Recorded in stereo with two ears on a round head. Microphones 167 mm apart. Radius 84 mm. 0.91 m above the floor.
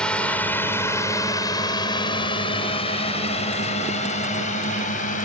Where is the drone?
5° left (ahead or behind); by 5.2 s 45° left (ahead or behind).